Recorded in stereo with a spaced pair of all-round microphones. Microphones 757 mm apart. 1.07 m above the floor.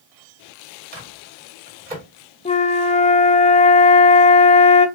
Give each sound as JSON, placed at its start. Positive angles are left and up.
{"t": 0.9, "sound": "a microwave", "side_deg": -75, "distance_m": 2.5}
{"t": 2.5, "sound": "a flute", "side_deg": 10, "distance_m": 0.6}